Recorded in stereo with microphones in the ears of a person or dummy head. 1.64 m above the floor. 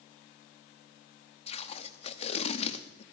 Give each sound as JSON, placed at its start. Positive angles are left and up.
{"t": 1.5, "sound": "tape being pulled", "side_deg": 35, "distance_m": 0.6}